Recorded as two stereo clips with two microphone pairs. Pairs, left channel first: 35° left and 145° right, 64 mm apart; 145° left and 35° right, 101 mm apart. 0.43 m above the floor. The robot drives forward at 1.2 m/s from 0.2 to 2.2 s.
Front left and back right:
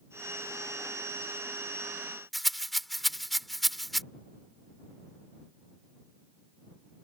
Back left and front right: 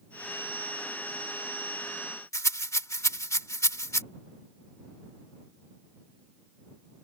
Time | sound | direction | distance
2.3 | a rattle | 125° left | ?